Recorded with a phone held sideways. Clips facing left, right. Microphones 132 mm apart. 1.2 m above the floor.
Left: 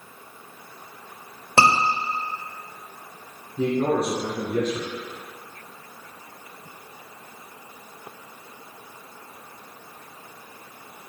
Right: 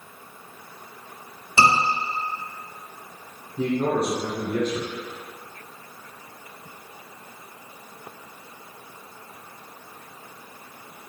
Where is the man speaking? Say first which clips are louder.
Left 1 dB; 5° left (ahead or behind), 1.1 m.